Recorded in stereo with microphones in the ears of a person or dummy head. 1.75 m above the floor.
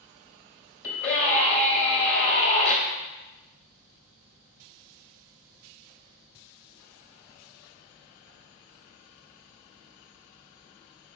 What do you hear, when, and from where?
0.8 s a scream: 40° left (ahead or behind), 1.9 m